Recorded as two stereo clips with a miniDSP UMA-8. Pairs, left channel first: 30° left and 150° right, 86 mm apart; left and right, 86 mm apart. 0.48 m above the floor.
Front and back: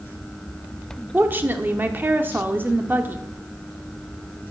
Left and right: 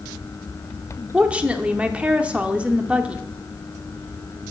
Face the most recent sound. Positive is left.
turn(degrees=-140)